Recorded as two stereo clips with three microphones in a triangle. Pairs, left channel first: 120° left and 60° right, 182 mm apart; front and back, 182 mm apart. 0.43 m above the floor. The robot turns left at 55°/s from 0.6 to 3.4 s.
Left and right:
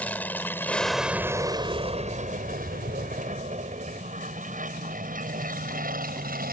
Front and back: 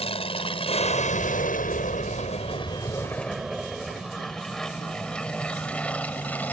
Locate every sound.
0.0 s an aircraft: 40° left; by 6.5 s 80° right